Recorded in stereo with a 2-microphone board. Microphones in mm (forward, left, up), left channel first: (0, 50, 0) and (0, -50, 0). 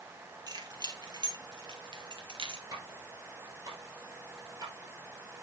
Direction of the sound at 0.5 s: 45° right (ahead or behind).